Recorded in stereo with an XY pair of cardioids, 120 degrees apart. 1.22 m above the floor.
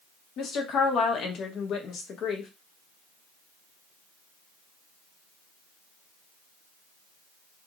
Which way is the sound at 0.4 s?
60° left.